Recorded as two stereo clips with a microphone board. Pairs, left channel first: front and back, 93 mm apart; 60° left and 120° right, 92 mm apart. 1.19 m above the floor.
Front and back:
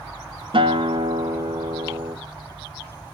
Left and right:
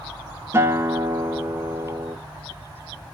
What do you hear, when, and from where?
0.5 s a guitar: straight behind, 0.9 m